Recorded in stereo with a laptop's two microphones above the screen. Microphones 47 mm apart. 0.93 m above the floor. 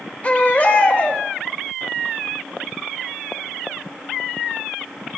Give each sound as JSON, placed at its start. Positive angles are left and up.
{"t": 0.2, "sound": "a baby crying", "side_deg": 35, "distance_m": 0.9}